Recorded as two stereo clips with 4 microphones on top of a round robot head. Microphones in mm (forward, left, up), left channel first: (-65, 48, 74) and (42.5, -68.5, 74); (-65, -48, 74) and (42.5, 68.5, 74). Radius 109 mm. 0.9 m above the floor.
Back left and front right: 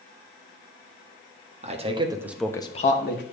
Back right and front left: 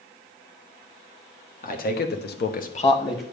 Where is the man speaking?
95° right, 1.5 m; by 3.2 s 155° left, 1.2 m.